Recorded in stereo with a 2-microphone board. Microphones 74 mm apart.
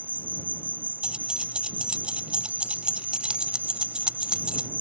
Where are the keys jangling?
10° right (ahead or behind).